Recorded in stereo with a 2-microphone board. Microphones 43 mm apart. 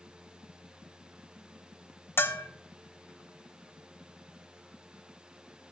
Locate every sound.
2.2 s a bell: 60° left (ahead or behind), 0.6 m